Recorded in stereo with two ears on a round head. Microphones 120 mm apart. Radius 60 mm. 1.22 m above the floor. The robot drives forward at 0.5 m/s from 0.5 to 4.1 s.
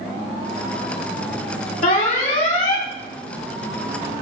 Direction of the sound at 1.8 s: 65° left (ahead or behind).